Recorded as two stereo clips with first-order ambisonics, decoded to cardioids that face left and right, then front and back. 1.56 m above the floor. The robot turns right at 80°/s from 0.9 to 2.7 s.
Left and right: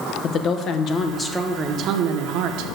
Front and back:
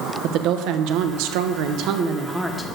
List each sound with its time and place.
0.2 s a woman speaking: 145° left, 0.9 m; by 2.7 s 70° right, 0.9 m